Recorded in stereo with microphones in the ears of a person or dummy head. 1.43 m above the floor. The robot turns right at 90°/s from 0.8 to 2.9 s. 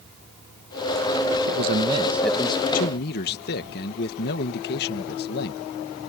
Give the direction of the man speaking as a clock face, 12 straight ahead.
2 o'clock.